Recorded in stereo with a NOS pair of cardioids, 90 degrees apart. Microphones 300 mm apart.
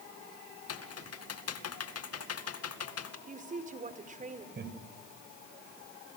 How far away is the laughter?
About 8 m.